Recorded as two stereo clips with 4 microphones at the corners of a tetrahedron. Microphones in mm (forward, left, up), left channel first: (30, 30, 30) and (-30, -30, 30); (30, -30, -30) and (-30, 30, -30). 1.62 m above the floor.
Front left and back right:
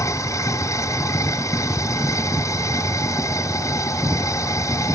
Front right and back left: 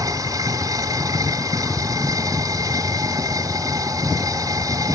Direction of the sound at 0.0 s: 95° left.